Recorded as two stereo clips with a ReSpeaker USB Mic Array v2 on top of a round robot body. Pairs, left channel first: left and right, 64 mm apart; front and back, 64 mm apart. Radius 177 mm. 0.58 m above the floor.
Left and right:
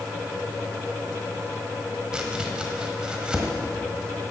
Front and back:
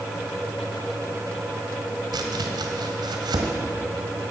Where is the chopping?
170° right, 1.3 m.